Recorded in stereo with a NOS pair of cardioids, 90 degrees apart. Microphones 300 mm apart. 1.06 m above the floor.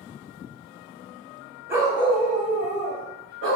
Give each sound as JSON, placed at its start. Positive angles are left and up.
{"t": 1.7, "sound": "a dog barking", "azimuth_deg": -10, "distance_m": 1.7}